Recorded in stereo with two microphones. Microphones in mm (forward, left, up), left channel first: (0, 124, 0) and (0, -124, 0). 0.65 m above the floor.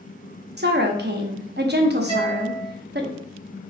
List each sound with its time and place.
0.6 s a woman speaking: 45° right (ahead or behind), 0.7 m
2.1 s a guitar: 25° left (ahead or behind), 1.6 m